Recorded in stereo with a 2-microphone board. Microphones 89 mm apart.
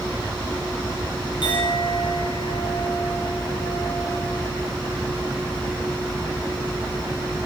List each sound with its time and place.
1.4 s a clink: 60° left (ahead or behind), 9.5 m